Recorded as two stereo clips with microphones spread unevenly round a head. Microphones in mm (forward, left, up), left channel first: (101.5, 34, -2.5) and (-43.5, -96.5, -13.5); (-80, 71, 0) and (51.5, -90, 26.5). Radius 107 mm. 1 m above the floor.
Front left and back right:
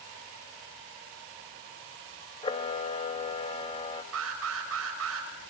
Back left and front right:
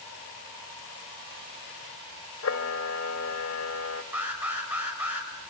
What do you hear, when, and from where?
2.4 s a camera shutter: 105° left, 1.4 m
4.1 s an alarm: 135° right, 5.5 m